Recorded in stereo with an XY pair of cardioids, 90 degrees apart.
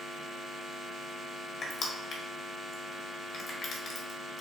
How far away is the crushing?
About 1.5 m.